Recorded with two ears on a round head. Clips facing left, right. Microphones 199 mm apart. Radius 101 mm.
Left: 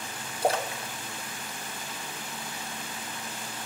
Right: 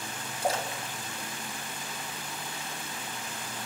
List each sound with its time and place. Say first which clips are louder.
0.4 s a splash: left 3 dB; 55° left (ahead or behind), 1.4 m